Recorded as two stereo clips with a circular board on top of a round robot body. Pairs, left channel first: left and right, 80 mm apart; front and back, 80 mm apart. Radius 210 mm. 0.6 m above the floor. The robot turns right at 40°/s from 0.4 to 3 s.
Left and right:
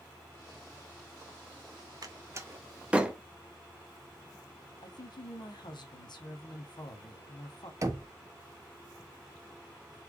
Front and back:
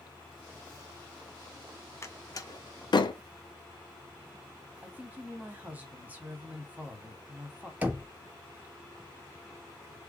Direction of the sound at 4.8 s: 110° left.